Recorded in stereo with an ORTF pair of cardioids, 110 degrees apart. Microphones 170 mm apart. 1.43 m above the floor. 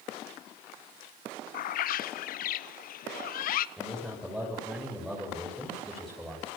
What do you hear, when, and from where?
1.5 s a bird: 60° left, 0.9 m
3.8 s a man speaking: straight ahead, 7 m